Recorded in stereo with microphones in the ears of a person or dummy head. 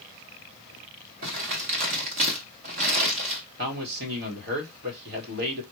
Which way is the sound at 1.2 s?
35° right (ahead or behind).